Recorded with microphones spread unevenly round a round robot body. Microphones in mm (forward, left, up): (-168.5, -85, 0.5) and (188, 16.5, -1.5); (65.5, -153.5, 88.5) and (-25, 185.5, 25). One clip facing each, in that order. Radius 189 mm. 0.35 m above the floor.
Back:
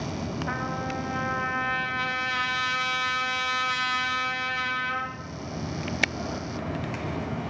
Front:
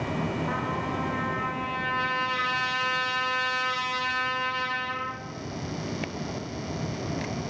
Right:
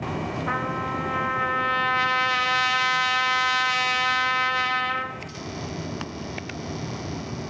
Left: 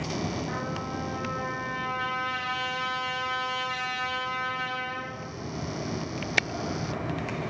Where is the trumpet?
90° right, 0.5 m.